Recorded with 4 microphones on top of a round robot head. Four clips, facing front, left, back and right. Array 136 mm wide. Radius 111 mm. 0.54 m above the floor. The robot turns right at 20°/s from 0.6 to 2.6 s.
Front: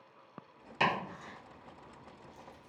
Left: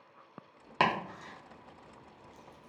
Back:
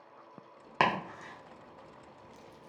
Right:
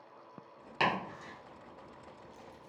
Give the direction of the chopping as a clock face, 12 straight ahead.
7 o'clock.